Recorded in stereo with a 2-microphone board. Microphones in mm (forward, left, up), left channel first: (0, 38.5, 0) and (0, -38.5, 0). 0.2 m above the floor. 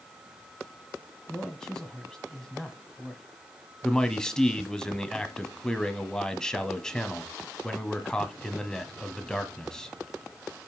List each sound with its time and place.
1.3 s a man speaking: 10° left (ahead or behind), 1.1 m
3.8 s a man speaking: 10° left (ahead or behind), 1.2 m